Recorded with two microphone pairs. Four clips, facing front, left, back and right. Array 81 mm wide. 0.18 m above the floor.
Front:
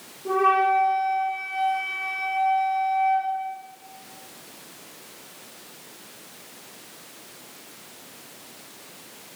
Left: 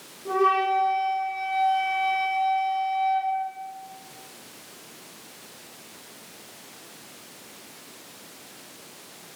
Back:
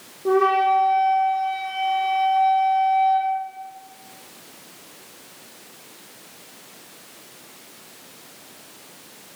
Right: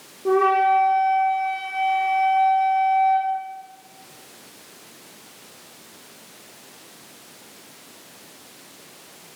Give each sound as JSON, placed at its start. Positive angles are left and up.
{"t": 0.2, "sound": "a flute", "azimuth_deg": -135, "distance_m": 8.5}